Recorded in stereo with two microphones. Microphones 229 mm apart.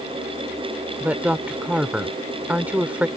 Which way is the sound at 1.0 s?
5° right (ahead or behind).